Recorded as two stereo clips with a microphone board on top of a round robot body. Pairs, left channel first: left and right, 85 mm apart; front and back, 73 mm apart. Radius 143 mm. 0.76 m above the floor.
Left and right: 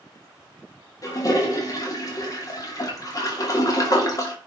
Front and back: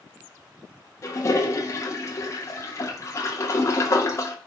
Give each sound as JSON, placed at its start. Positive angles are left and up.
{"t": 1.0, "sound": "a toilet flushing", "azimuth_deg": 45, "distance_m": 2.5}